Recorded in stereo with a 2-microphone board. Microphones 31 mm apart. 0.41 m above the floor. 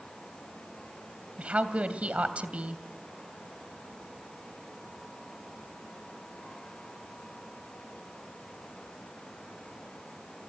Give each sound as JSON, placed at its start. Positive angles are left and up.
{"t": 1.4, "sound": "a woman speaking", "side_deg": -40, "distance_m": 2.5}